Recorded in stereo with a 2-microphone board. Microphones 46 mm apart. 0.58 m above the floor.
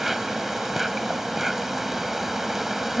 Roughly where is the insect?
Centre.